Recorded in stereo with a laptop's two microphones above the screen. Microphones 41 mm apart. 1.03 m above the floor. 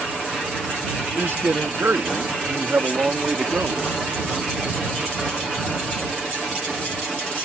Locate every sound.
1.1 s a man speaking: 75° right (ahead or behind); by 3.8 s 35° right (ahead or behind)